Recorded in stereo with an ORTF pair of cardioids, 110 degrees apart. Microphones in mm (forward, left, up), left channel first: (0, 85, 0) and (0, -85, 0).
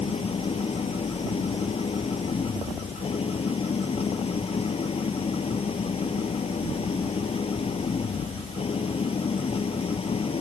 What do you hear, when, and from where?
0.0 s an engine running: 35° left